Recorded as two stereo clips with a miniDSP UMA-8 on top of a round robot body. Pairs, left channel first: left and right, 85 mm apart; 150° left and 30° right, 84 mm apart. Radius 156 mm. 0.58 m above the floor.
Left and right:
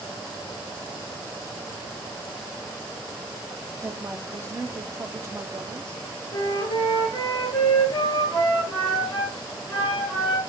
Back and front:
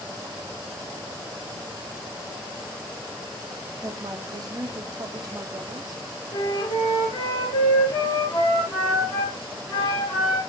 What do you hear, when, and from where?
3.8 s a woman speaking: 40° right, 1.3 m
6.3 s a flute: 135° left, 3.5 m